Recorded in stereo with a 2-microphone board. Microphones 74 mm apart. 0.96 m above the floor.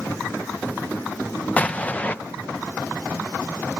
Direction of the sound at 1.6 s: 20° left (ahead or behind).